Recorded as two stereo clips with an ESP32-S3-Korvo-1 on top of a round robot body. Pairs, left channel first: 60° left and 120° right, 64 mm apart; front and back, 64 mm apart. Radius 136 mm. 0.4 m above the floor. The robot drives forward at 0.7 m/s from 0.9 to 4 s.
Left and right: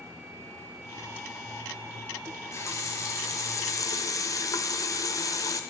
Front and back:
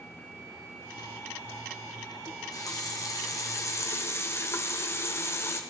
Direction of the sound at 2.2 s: 20° left.